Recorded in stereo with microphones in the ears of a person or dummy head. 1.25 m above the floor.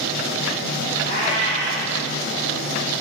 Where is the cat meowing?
55° left (ahead or behind), 5 m.